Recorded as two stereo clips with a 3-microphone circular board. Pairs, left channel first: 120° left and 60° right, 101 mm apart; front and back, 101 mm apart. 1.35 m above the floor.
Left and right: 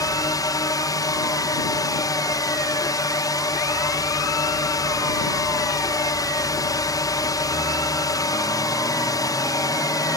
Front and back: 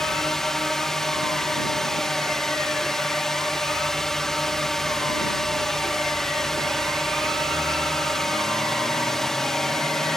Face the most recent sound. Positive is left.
turn(degrees=85)